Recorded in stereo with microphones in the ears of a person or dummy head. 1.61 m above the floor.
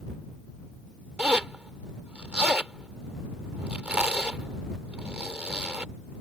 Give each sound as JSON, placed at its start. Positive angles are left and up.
{"t": 1.2, "sound": "a zipper", "side_deg": -10}